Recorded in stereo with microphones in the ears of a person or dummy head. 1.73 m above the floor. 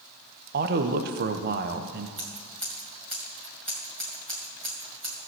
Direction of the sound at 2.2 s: 10° left (ahead or behind).